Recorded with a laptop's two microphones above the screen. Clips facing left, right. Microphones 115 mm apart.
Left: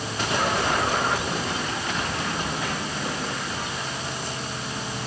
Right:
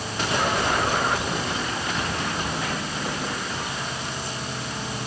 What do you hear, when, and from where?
Only background noise.